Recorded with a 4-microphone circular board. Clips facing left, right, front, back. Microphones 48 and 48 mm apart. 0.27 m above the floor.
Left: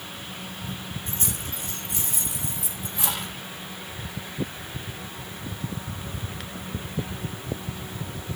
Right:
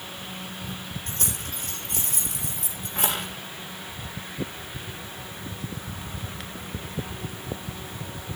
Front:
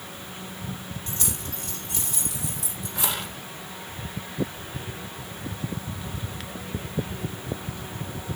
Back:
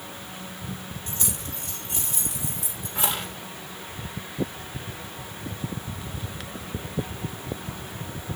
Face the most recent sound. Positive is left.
turn(degrees=-125)